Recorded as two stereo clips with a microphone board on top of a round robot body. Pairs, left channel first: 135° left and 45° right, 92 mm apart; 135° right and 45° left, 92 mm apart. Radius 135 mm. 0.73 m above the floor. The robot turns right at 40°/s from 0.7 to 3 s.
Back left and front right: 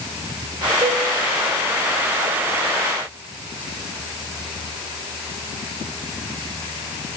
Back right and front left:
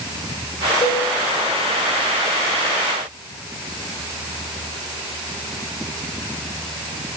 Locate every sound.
0.8 s a cowbell: 95° right, 5.5 m; by 1.0 s 85° right, 5.5 m